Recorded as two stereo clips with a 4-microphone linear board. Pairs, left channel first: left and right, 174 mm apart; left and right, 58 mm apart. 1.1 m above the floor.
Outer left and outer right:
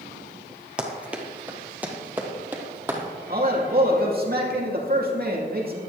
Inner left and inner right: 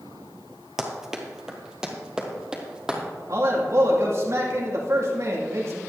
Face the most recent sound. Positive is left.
turn(degrees=-60)  # may be behind; listen again after turning